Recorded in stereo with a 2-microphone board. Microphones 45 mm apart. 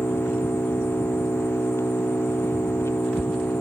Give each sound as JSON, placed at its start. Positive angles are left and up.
{"t": 0.0, "sound": "an engine running", "side_deg": 75}